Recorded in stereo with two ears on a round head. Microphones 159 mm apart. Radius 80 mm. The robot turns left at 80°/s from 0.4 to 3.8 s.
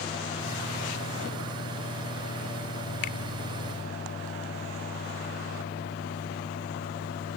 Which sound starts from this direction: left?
A finger snap, at 3.0 s.